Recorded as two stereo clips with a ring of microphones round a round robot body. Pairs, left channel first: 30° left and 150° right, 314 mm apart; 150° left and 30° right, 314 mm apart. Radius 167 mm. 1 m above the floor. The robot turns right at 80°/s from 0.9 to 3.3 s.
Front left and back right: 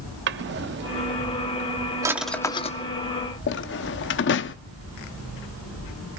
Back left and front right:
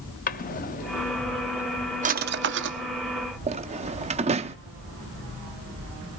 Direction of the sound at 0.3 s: 170° right.